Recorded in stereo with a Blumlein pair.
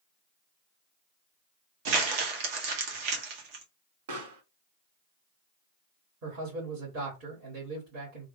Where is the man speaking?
35° right, 2 m.